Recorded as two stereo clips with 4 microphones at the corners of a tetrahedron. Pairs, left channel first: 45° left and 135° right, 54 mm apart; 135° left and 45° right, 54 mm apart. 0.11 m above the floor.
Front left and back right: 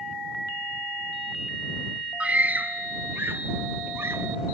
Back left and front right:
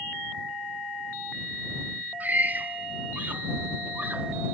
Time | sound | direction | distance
2.2 | a scream | 80° right | ?